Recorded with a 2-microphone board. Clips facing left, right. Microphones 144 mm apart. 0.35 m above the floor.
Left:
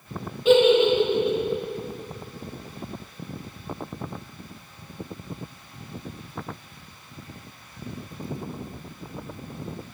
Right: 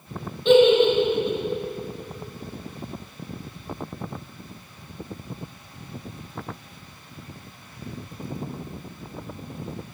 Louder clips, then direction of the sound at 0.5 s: Right 1 dB; 5° left (ahead or behind).